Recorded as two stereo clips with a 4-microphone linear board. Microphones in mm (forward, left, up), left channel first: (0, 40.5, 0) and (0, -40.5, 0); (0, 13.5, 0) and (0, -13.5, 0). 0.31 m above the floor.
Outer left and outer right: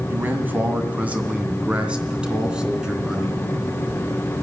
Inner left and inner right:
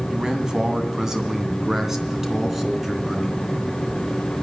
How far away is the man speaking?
About 2.5 m.